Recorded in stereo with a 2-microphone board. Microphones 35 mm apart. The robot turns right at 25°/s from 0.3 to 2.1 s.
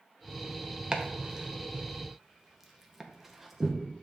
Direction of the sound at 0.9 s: 25° right (ahead or behind).